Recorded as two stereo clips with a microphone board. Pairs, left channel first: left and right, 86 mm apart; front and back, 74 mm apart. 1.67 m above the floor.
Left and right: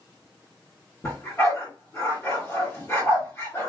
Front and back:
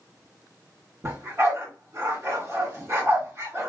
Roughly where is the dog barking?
Behind left.